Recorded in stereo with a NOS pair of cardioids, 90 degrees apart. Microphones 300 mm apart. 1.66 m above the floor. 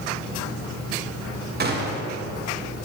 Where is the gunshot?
35° right, 1.8 m.